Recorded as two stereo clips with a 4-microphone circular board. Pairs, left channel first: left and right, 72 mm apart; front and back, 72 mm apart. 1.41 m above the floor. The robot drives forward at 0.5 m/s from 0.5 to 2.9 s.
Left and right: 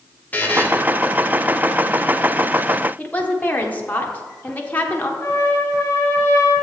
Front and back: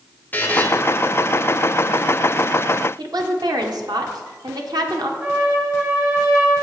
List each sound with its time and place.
0.3 s a buzzer: 45° left, 0.9 m; by 0.7 s 50° left, 0.9 m
3.0 s a woman speaking: 155° left, 0.9 m
5.2 s a trumpet: 140° left, 2 m